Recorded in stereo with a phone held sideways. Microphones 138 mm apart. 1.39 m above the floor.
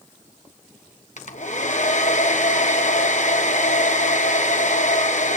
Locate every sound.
1.2 s a hair dryer: 65° left (ahead or behind), 1.2 m